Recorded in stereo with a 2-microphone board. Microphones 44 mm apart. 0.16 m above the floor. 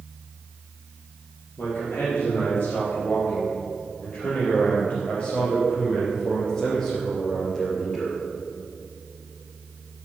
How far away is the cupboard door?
I don't hear a cupboard door.